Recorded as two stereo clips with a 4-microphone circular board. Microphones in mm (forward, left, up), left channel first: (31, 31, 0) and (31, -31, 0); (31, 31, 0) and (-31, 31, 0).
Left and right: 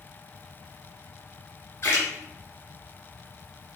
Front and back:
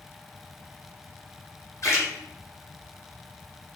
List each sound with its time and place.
1.8 s a splash: 40° left, 3.5 m